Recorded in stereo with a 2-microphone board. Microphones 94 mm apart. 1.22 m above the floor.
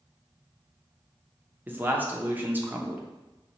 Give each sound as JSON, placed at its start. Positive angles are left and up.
{"t": 1.7, "sound": "a man speaking", "side_deg": -20, "distance_m": 0.6}